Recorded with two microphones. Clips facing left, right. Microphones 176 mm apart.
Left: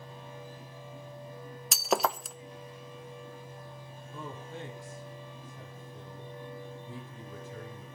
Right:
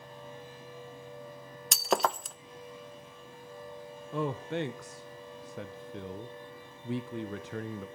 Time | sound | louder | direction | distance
1.7 | breaking glass | even | centre (ahead or behind) | 0.5 m
4.1 | a man speaking | right 10 dB | 75° right (ahead or behind) | 0.9 m